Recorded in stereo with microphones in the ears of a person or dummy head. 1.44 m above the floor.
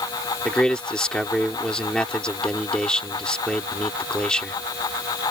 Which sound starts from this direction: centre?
A man speaking, at 0.5 s.